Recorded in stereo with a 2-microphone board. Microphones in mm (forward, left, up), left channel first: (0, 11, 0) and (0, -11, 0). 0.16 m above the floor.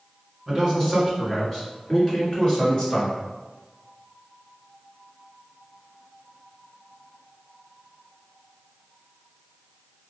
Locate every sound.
0.5 s a man speaking: 15° right (ahead or behind), 1.8 m; by 3.1 s 40° left (ahead or behind), 2.5 m